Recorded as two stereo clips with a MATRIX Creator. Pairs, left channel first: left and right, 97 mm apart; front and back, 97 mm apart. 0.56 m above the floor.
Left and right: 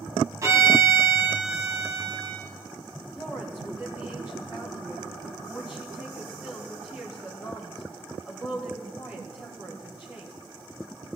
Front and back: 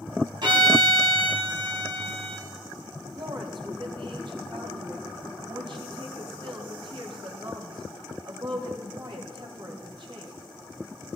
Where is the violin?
145° right, 3 m.